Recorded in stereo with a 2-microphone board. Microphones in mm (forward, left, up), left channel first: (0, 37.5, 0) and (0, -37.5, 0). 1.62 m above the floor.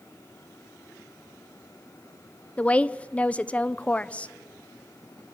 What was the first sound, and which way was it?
A woman speaking, 15° left (ahead or behind).